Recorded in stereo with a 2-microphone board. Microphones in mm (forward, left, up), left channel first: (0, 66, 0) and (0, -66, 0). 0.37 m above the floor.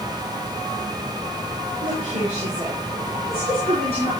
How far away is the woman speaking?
About 5.5 m.